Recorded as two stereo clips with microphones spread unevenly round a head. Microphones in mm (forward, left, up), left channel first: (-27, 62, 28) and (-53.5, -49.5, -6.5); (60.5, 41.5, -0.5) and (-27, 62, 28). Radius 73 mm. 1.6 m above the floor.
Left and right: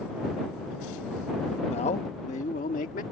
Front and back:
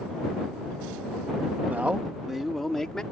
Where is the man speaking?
100° left; by 3.0 s 75° left.